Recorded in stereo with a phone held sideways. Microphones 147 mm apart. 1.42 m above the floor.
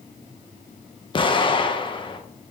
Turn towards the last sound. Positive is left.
turn(degrees=35)  # may be behind; listen again after turning